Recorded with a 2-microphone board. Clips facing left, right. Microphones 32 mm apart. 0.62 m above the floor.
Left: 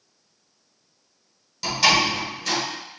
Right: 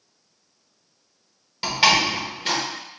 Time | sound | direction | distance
1.6 | a door slam | 35° right (ahead or behind) | 1.6 m